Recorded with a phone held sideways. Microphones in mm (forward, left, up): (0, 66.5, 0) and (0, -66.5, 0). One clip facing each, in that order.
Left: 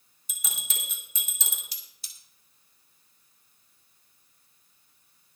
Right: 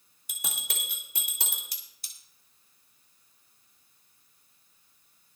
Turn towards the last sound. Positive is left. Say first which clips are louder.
# even
turn(degrees=-55)  # may be behind; listen again after turning